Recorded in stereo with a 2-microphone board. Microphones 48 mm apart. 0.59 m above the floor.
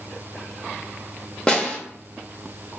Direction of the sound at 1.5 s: 20° left (ahead or behind).